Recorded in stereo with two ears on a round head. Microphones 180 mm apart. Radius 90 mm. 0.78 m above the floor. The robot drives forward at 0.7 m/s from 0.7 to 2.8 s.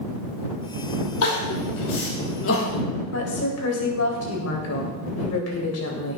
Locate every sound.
1.2 s crying: 80° left, 3.5 m; by 2.8 s 65° left (ahead or behind), 4 m
3.1 s a woman speaking: 80° left, 3.5 m